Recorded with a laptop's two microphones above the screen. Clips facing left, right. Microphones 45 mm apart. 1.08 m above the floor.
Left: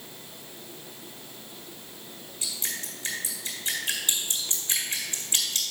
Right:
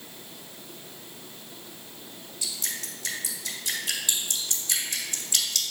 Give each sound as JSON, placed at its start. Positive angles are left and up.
{"t": 2.4, "sound": "dripping", "side_deg": 30, "distance_m": 3.0}